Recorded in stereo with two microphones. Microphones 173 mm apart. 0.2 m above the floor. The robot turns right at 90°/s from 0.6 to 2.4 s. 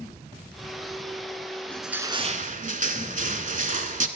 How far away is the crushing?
About 0.6 m.